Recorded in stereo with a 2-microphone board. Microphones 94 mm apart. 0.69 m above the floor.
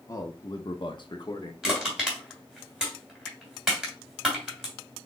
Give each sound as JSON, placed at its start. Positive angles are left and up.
{"t": 0.1, "sound": "a man speaking", "side_deg": 35, "distance_m": 0.9}
{"t": 1.6, "sound": "crushing", "side_deg": -5, "distance_m": 2.5}